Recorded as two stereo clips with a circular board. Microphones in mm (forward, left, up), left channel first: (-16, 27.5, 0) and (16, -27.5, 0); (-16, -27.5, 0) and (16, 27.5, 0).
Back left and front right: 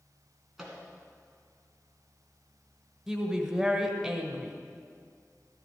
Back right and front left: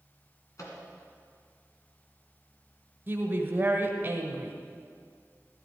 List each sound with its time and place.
0.6 s a microwave: 145° right, 2.5 m
3.1 s a woman speaking: 25° left, 1.1 m